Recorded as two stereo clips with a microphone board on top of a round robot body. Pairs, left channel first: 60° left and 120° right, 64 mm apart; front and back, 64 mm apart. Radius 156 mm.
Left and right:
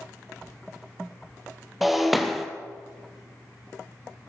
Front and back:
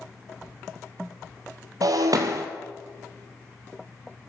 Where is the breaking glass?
150° left, 1.2 m.